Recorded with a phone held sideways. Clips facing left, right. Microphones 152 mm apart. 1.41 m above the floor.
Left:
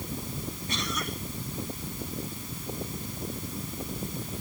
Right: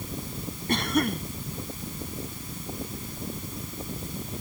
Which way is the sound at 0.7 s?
55° right (ahead or behind).